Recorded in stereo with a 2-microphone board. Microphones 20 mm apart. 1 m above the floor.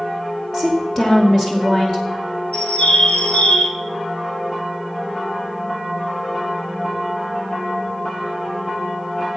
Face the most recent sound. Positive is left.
turn(degrees=75)  # may be behind; listen again after turning